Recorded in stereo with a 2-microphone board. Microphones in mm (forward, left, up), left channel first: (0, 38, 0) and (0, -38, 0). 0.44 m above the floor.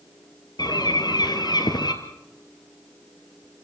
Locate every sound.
0.6 s a bird: 65° left (ahead or behind), 2.0 m